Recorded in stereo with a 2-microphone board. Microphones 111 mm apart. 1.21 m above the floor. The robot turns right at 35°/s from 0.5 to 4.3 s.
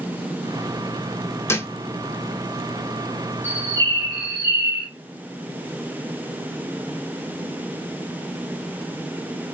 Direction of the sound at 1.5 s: 25° left (ahead or behind).